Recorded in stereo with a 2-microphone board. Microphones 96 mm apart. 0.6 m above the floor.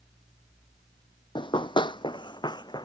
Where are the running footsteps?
50° left (ahead or behind); by 2.9 s 45° left (ahead or behind).